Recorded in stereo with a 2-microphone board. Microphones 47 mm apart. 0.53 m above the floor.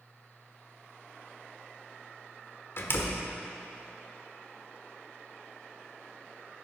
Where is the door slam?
55° left (ahead or behind), 1.2 m.